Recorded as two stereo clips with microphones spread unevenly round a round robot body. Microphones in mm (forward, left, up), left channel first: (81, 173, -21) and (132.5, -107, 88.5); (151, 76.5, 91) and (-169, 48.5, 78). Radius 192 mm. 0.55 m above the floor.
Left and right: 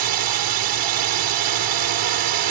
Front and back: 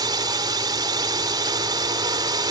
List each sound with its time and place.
0.0 s a drone: 100° right